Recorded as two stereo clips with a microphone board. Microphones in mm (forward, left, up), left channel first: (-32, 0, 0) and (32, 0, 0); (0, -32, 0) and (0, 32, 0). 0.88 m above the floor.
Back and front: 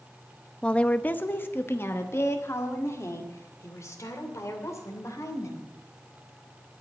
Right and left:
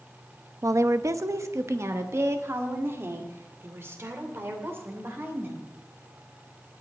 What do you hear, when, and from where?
0.6 s a woman speaking: 105° left, 0.6 m; by 5.7 s 145° left, 3 m